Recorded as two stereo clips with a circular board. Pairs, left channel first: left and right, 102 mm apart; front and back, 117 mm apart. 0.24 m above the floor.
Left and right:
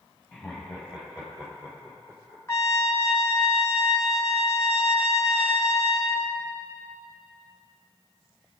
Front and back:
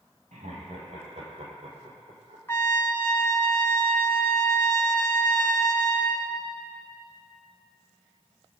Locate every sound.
0.3 s laughter: straight behind, 5 m; by 2.4 s 160° right, 6.5 m
2.5 s a trumpet: 50° left, 0.7 m